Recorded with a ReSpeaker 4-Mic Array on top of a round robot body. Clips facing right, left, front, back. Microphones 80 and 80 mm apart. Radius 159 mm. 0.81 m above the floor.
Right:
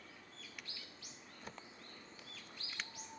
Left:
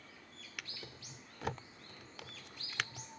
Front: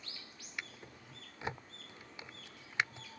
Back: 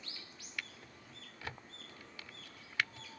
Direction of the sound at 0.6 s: 70° left.